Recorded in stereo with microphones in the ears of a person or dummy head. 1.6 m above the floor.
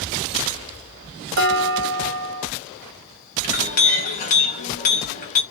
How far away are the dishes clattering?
About 1.7 m.